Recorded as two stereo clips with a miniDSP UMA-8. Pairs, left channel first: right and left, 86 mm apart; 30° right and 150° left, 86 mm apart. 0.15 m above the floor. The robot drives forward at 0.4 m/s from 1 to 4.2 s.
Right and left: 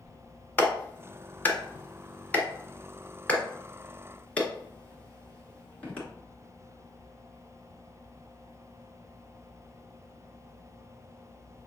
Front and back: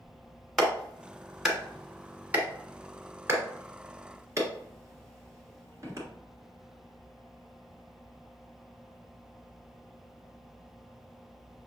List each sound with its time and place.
0.6 s a clap: 110° right, 1.3 m; by 6.1 s 165° right, 1.9 m